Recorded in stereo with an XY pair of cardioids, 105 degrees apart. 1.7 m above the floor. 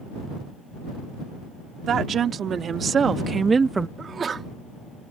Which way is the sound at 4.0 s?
40° right.